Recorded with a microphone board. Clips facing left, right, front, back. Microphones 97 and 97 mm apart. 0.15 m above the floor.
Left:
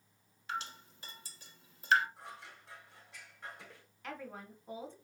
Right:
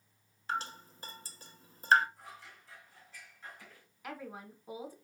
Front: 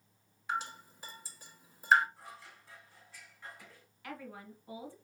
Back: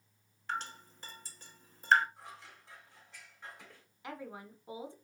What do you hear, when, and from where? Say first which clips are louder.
0.5 s dripping: right 4 dB, front 2 dB; 80° right, 0.8 m
2.2 s scissors: left 2 dB, even; 110° left, 3.5 m
4.0 s a woman speaking: right 1 dB, back 1 dB; 155° right, 1.1 m